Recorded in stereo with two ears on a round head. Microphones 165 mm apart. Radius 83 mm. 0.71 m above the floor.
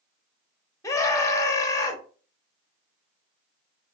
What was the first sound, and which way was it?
A scream, 15° left (ahead or behind).